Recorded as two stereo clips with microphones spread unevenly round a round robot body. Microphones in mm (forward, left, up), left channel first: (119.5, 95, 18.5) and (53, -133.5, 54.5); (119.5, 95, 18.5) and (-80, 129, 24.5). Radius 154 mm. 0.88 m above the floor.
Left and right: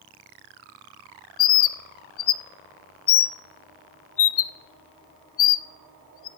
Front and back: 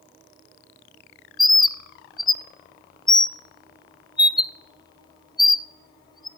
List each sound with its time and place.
1.4 s a bird: 60° left, 0.5 m